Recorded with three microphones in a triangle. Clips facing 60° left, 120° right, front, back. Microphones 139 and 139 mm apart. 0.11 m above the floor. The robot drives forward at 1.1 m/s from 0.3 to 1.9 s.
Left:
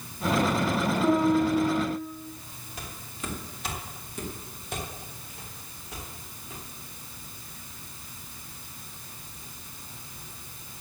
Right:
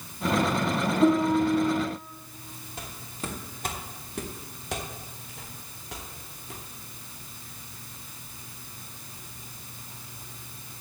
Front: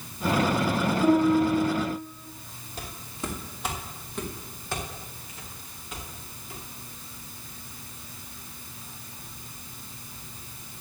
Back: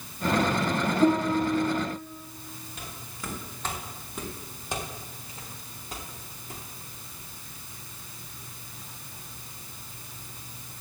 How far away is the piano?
About 4.5 m.